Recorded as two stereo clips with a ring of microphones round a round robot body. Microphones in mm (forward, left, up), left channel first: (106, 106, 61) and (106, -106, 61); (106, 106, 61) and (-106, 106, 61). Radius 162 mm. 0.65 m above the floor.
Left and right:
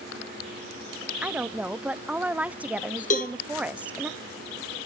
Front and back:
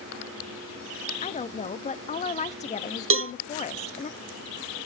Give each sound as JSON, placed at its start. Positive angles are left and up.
{"t": 1.2, "sound": "a woman speaking", "azimuth_deg": -10, "distance_m": 0.6}
{"t": 3.1, "sound": "a cowbell", "azimuth_deg": 155, "distance_m": 0.8}